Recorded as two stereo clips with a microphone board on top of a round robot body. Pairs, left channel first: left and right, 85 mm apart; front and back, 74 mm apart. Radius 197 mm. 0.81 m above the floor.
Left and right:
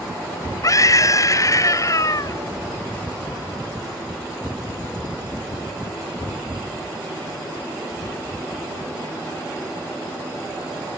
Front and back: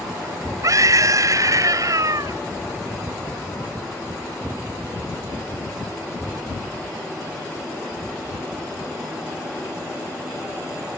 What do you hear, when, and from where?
0.6 s a scream: 140° left